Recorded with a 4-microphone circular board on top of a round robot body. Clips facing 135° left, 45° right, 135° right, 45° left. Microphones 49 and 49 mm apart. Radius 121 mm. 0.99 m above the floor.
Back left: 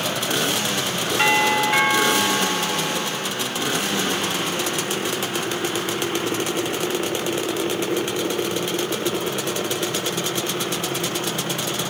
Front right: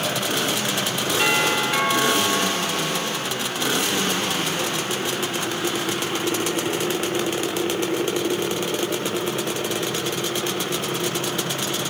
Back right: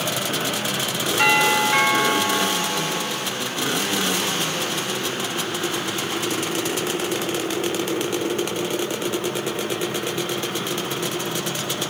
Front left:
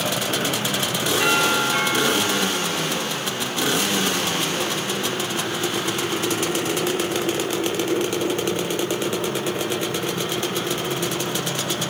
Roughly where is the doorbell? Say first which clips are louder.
Back left 3 dB, back right 3 dB; behind.